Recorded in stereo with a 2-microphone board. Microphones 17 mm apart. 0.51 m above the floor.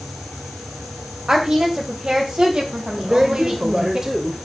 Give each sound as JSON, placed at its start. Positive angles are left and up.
{"t": 1.3, "sound": "a woman speaking", "side_deg": -50, "distance_m": 3.0}
{"t": 3.0, "sound": "a man speaking", "side_deg": -35, "distance_m": 1.7}